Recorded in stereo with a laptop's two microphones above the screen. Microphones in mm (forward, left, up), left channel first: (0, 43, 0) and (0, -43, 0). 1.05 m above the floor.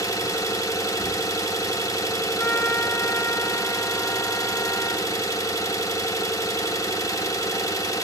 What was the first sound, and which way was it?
An engine running, 40° left (ahead or behind).